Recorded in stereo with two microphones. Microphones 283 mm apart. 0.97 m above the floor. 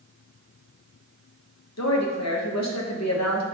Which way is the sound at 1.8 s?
65° left (ahead or behind).